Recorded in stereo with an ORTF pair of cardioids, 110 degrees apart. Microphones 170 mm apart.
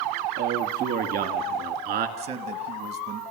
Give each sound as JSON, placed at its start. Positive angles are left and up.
{"t": 0.4, "sound": "a man speaking", "azimuth_deg": -70, "distance_m": 2.0}
{"t": 2.2, "sound": "a man speaking", "azimuth_deg": -65, "distance_m": 1.3}